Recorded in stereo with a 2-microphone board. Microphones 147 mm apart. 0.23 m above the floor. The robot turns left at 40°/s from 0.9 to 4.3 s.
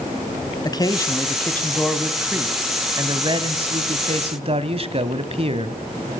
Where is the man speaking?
40° left, 1.3 m; by 5.8 s 95° right, 1.3 m.